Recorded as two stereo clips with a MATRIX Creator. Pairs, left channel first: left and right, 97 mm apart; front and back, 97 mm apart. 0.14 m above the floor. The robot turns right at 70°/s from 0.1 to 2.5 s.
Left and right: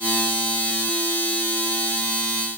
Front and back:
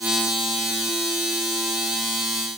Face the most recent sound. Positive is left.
No sound to turn to.